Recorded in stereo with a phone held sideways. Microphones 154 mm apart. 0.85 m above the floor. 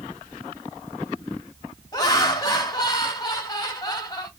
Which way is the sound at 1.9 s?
25° left (ahead or behind).